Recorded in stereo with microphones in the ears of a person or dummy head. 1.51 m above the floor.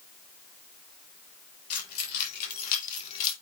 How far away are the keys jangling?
About 4.5 m.